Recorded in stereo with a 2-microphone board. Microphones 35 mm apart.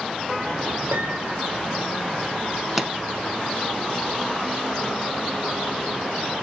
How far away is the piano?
About 1.5 m.